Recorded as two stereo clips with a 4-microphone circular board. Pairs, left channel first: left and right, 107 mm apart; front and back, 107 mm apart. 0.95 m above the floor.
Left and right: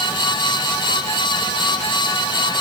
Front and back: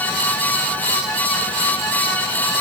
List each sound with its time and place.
Only background noise.